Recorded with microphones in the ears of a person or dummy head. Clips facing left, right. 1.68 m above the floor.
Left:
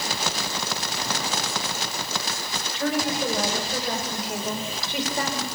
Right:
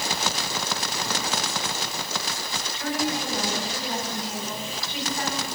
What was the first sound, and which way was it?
A woman speaking, 55° left (ahead or behind).